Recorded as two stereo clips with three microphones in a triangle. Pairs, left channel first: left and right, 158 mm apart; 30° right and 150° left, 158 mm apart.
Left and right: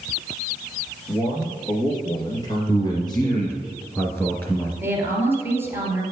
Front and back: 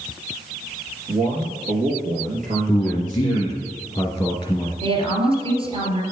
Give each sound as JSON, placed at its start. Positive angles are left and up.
{"t": 1.1, "sound": "a man speaking", "azimuth_deg": 150, "distance_m": 2.5}
{"t": 2.7, "sound": "a man speaking", "azimuth_deg": 20, "distance_m": 2.0}
{"t": 4.8, "sound": "a woman speaking", "azimuth_deg": -165, "distance_m": 2.5}